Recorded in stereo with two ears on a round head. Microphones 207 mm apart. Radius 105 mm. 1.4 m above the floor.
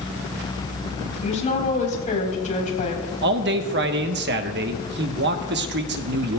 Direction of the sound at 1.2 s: 35° left (ahead or behind).